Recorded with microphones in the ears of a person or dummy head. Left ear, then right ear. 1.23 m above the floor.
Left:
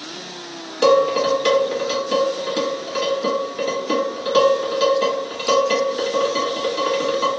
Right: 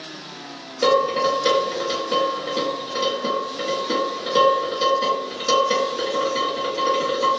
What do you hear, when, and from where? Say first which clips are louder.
0.8 s dishes clattering: left 3 dB; 50° left (ahead or behind), 1.4 m